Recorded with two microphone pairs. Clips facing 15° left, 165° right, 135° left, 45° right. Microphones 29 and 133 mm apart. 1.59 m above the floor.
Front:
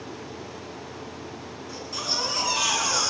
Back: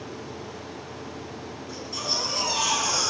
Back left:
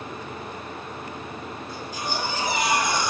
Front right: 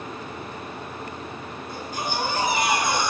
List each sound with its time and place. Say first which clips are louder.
1.7 s a baby crying: even, front right 2 dB; 85° right, 7.5 m